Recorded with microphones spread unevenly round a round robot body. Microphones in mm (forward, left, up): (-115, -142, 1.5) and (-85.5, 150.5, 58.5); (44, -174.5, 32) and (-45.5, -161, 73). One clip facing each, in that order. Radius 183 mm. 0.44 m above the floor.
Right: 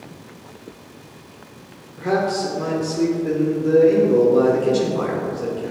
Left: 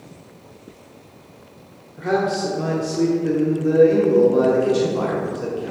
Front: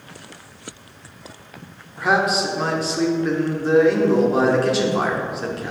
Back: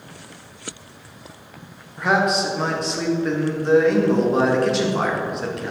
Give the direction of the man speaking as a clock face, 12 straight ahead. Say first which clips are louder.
Even, even; 1 o'clock.